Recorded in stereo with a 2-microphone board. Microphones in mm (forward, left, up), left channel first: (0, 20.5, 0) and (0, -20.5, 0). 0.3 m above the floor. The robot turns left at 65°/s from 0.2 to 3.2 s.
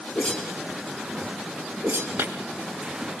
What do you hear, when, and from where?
0.1 s a whoosh: 25° left (ahead or behind), 5 m; by 2.1 s 80° right, 5 m
2.2 s breaking glass: 80° right, 4 m; by 2.3 s 70° right (ahead or behind), 4 m